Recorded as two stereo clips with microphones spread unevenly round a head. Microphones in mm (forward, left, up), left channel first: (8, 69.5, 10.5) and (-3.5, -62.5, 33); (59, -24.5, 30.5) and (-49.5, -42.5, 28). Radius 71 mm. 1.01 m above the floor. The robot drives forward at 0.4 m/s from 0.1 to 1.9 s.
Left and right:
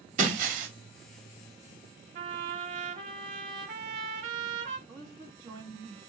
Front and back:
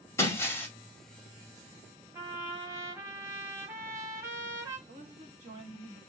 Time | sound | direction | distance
0.2 | breaking glass | 55° right | 1.8 m
2.1 | a trumpet | 105° right | 1.2 m
4.9 | a woman speaking | 155° right | 1.8 m